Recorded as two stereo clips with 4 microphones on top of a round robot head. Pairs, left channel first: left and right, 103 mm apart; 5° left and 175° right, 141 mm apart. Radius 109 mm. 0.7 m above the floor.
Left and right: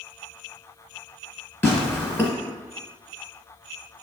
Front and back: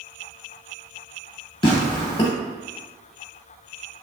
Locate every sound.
1.6 s tearing paper: 35° left, 0.6 m